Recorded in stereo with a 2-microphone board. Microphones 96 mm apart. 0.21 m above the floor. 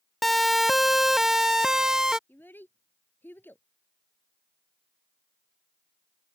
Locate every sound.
0.2 s a siren: centre (ahead or behind); by 2.2 s 5° right (ahead or behind)
2.3 s a child speaking: 20° left (ahead or behind)